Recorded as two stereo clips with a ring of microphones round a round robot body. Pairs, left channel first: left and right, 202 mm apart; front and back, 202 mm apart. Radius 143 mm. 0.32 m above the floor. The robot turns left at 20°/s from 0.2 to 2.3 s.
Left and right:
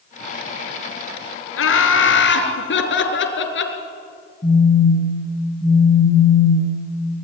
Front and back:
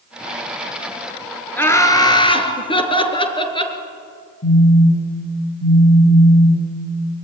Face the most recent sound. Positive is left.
turn(degrees=20)